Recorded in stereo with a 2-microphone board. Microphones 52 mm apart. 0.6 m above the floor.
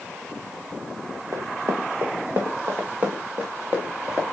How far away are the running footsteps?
About 1.9 m.